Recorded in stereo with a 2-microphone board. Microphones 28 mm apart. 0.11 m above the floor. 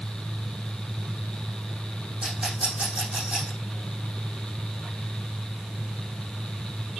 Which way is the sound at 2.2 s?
45° right (ahead or behind).